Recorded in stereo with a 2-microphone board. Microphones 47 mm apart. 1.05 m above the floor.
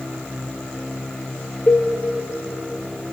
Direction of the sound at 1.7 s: 45° left (ahead or behind).